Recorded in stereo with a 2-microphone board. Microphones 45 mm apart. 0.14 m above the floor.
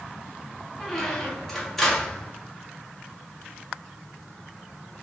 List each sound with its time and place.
0.8 s a squeak: 5° left (ahead or behind), 2.0 m